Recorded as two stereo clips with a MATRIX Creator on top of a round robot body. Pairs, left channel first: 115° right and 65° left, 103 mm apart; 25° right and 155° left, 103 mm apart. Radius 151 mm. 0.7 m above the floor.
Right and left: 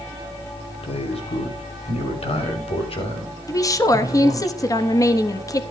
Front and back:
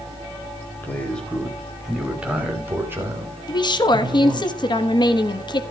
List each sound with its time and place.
0.8 s a man speaking: 95° right, 3 m; by 4.5 s 150° right, 5 m
3.5 s a woman speaking: 60° right, 1.2 m